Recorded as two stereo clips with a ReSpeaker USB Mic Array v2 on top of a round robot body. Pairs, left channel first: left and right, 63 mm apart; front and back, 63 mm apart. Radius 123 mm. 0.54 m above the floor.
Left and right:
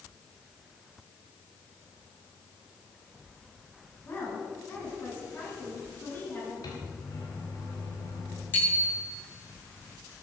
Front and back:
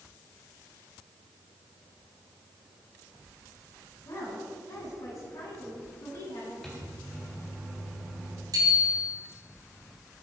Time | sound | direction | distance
4.0 | a woman speaking | 30° left | 6.5 m
6.6 | a microwave | 85° left | 4.5 m
8.5 | a bicycle bell | 155° left | 6.5 m